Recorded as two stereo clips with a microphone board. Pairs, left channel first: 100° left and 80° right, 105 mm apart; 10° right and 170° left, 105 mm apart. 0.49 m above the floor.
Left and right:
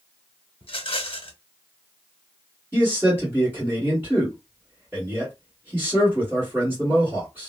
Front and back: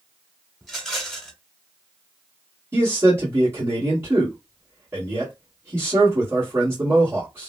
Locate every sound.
0.6 s a rattle: 75° left, 0.8 m
2.7 s a man speaking: 140° right, 1.6 m